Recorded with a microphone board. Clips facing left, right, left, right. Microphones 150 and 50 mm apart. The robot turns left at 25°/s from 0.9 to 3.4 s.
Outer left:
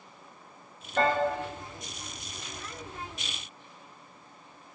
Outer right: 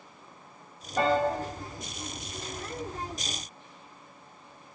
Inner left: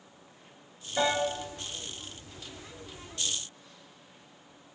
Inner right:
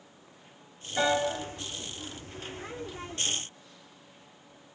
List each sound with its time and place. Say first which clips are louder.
1.0 s a piano: outer right 1 dB, inner right 1 dB; 10° right (ahead or behind), 0.8 m; by 1.2 s 15° right (ahead or behind), 0.8 m